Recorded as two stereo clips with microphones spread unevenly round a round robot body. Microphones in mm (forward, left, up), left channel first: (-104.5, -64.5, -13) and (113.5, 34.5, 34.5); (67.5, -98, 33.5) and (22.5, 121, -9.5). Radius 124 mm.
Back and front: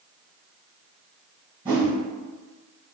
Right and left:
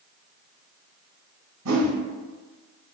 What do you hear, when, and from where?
1.6 s a whoosh: 90° left, 0.9 m